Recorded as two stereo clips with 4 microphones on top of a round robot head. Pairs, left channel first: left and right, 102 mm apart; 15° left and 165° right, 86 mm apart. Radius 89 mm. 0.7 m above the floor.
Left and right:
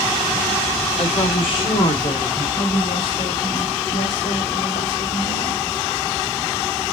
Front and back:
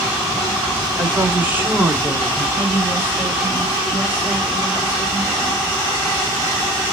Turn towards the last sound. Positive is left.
turn(degrees=125)